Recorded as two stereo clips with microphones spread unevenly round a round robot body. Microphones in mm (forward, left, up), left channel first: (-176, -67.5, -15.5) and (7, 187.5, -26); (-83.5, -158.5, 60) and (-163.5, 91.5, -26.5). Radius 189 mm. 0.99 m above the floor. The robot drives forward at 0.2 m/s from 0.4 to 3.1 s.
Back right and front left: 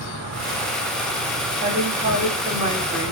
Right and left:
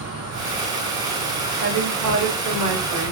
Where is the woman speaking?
95° left, 2.5 m; by 3.1 s 105° left, 2.5 m.